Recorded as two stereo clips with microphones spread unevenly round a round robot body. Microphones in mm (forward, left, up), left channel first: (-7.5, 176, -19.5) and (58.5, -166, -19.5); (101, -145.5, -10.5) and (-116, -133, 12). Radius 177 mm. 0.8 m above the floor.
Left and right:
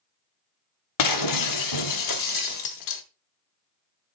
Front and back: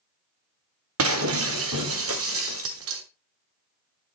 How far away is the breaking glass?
About 0.9 m.